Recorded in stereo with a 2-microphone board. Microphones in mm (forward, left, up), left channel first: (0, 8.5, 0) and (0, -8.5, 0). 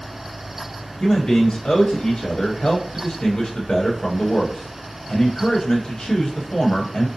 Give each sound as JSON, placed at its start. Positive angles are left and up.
{"t": 1.0, "sound": "a man speaking", "side_deg": 70, "distance_m": 0.7}